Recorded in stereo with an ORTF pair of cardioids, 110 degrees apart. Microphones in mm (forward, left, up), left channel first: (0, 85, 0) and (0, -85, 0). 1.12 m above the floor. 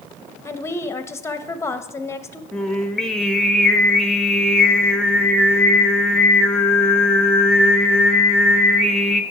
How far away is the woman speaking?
About 0.8 m.